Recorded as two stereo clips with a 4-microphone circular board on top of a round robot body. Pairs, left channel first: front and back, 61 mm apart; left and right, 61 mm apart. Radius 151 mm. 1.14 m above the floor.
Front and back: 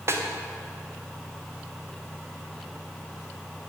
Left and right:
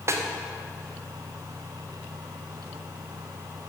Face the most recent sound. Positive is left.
turn(degrees=-135)